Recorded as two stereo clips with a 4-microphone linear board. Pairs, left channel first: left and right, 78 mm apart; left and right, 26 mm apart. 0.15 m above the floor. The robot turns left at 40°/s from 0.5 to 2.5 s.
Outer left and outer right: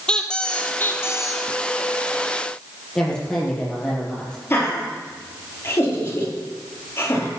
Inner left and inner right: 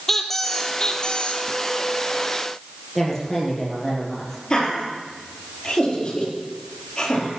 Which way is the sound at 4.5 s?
30° left (ahead or behind).